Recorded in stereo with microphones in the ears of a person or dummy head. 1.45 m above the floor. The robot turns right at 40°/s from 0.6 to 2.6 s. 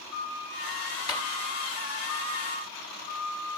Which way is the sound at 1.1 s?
25° left (ahead or behind).